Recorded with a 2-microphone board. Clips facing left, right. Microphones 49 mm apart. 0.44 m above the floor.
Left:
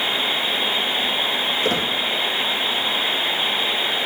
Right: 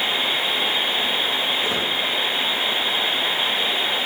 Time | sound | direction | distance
1.6 | a squeak | 70° left (ahead or behind) | 1.7 m